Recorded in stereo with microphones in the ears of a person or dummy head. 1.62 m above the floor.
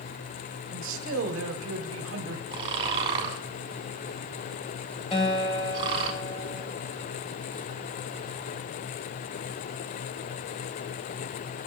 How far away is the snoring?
About 0.9 m.